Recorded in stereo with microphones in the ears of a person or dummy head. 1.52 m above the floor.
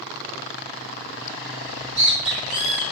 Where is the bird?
70° right (ahead or behind), 1.9 m.